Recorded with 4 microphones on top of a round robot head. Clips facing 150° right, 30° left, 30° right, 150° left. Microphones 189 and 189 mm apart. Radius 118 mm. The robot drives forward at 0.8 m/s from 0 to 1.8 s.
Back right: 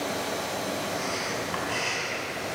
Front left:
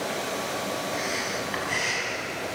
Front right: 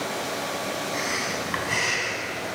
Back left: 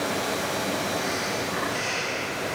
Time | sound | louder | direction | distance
0.9 | breathing | front left 1 dB, back left 2 dB | 40° right | 6.5 m